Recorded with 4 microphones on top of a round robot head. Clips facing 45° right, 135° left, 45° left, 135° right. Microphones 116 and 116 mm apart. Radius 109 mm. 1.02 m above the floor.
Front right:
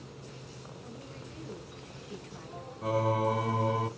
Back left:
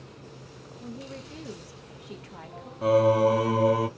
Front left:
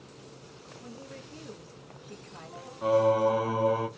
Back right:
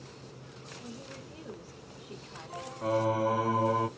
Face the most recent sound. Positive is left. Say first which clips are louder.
# back left 9 dB, front left 5 dB
turn(degrees=125)